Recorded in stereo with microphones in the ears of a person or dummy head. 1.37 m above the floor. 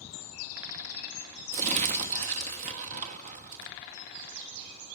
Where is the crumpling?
40° right (ahead or behind), 1.2 m.